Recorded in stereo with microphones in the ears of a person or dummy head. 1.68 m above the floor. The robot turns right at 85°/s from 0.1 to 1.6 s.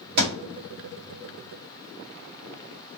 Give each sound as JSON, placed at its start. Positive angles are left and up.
{"t": 0.2, "sound": "a thud", "side_deg": -55, "distance_m": 2.0}